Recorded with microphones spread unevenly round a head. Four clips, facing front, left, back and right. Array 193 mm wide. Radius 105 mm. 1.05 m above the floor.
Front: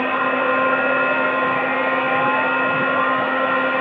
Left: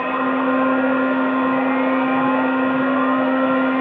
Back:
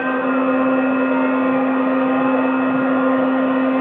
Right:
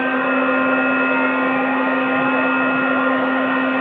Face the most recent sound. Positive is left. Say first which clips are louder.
# right 1 dB, back 2 dB
turn(degrees=175)